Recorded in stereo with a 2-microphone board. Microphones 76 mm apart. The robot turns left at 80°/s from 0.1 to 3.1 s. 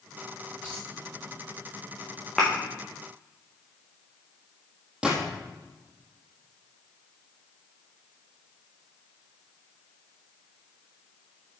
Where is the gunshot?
10° right (ahead or behind), 4 m.